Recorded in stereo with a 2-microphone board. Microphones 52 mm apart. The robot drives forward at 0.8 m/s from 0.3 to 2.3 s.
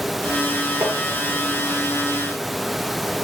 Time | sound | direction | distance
0.8 | tapping | 55° right (ahead or behind) | 7 m